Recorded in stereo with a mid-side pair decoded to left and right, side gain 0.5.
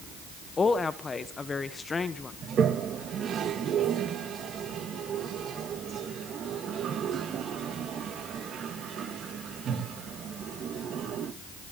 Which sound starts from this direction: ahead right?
A toilet flushing, at 2.4 s.